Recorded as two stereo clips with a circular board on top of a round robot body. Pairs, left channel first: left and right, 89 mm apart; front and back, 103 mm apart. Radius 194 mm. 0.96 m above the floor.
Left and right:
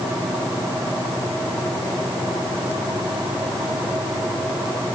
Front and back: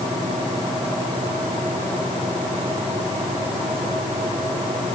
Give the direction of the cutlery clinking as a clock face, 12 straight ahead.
I don't hear cutlery clinking.